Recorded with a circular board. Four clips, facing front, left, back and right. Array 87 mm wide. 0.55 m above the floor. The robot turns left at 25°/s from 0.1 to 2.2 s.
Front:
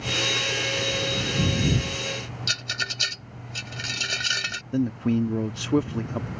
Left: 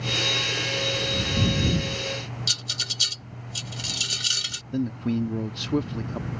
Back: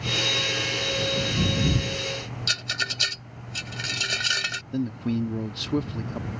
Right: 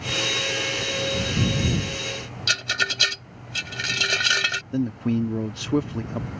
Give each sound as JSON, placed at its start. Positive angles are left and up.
{"t": 2.5, "sound": "a rattle", "azimuth_deg": -95}
{"t": 4.7, "sound": "a man speaking", "azimuth_deg": -30}